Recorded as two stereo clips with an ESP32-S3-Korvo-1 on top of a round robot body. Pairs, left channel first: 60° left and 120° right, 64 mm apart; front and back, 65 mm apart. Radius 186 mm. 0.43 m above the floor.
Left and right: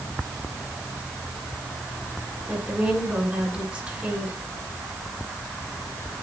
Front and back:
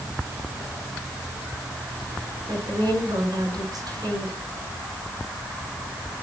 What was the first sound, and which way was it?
A woman speaking, 165° left.